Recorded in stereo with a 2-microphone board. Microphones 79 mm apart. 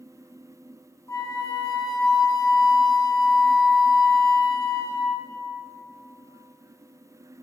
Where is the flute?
40° left (ahead or behind), 0.8 m.